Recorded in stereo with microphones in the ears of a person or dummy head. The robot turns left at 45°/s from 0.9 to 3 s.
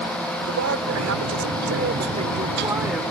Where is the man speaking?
80° right; by 3.0 s 175° right.